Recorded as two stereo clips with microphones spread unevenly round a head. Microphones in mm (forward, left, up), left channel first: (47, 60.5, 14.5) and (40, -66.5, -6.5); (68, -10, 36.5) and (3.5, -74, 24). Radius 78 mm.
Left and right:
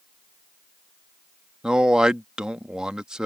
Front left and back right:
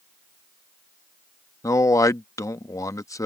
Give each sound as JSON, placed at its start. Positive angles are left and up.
{"t": 1.6, "sound": "a man speaking", "azimuth_deg": -10}